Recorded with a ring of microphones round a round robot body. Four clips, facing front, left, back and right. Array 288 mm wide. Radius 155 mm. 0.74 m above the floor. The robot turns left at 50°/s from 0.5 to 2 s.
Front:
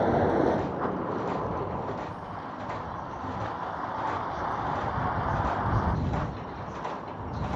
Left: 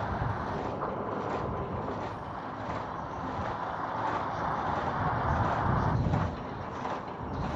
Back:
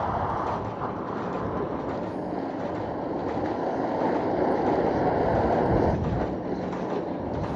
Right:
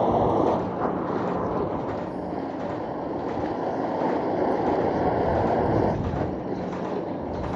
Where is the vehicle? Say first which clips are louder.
Right 13 dB, front 4 dB; 60° right; by 7.6 s 135° right.